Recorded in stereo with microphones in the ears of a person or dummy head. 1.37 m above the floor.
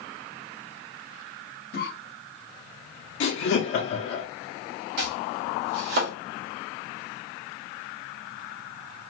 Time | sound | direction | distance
1.7 | a cough | 60° left (ahead or behind) | 1.1 m
3.2 | laughter | 70° left (ahead or behind) | 0.7 m
5.0 | chopping | 55° right (ahead or behind) | 1.0 m